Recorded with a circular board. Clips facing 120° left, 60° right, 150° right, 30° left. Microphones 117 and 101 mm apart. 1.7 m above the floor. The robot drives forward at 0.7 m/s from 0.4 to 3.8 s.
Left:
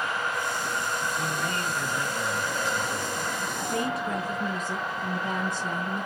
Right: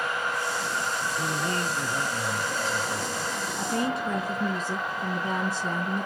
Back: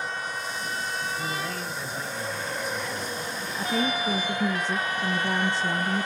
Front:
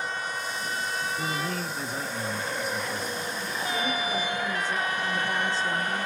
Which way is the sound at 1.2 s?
5° left.